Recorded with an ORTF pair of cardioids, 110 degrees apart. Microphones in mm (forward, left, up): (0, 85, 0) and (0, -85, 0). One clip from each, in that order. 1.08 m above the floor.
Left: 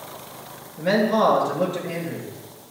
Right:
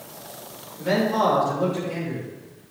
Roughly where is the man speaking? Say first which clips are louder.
Left 2 dB; ahead left.